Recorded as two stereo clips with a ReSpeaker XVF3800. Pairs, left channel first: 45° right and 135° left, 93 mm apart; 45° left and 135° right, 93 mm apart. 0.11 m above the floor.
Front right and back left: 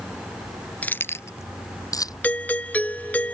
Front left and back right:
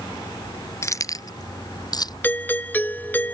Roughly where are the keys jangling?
Ahead.